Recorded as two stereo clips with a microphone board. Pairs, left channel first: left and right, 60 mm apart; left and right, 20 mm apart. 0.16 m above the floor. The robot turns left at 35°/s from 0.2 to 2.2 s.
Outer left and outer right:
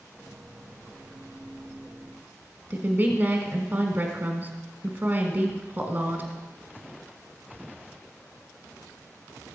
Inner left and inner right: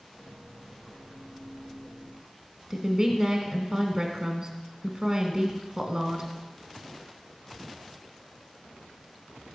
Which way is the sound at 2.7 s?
30° right (ahead or behind).